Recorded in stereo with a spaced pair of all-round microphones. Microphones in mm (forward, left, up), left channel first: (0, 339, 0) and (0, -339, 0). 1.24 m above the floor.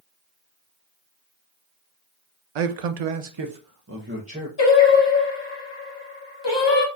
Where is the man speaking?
80° right, 0.7 m; by 4.5 s 5° right (ahead or behind), 1.0 m.